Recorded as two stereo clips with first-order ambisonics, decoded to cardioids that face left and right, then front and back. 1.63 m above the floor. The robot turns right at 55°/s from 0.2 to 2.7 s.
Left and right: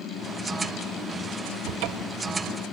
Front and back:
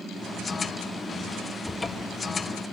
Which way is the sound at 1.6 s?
90° right.